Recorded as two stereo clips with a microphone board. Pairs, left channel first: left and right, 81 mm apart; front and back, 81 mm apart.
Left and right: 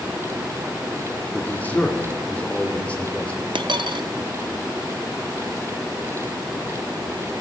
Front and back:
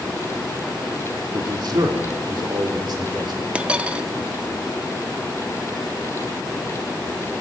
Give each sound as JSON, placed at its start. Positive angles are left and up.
{"t": 1.3, "sound": "a man speaking", "azimuth_deg": 155, "distance_m": 1.6}
{"t": 3.5, "sound": "a dropped coin", "azimuth_deg": -105, "distance_m": 0.5}